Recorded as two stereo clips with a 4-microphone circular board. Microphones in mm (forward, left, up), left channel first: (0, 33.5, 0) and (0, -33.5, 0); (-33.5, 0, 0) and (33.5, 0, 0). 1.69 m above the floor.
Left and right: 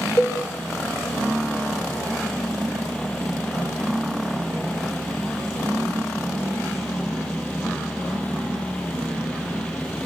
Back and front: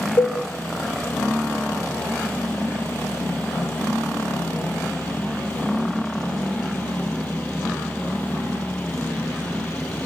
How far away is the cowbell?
About 1.3 m.